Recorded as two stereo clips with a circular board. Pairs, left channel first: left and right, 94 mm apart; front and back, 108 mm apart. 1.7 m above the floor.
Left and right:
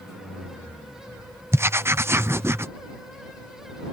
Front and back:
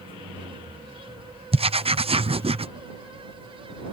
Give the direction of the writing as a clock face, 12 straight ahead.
5 o'clock.